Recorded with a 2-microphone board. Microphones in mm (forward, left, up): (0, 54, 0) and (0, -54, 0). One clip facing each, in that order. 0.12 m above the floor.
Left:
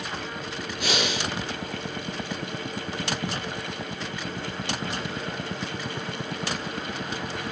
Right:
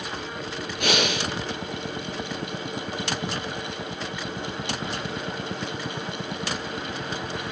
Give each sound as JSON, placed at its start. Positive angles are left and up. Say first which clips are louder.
{"t": 0.8, "sound": "breathing", "louder": "right 3 dB", "side_deg": -60, "distance_m": 0.8}